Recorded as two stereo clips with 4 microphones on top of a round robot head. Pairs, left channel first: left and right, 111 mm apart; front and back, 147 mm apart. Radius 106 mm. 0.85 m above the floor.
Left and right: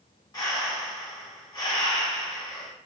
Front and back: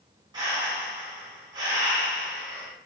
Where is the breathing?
130° left, 0.7 m.